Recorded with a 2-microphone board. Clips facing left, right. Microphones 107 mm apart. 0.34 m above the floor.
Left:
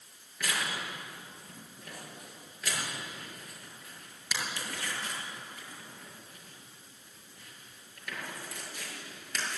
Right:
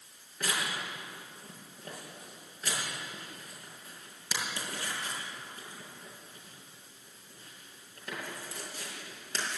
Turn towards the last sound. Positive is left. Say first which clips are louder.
# even
turn(degrees=-35)  # may be behind; listen again after turning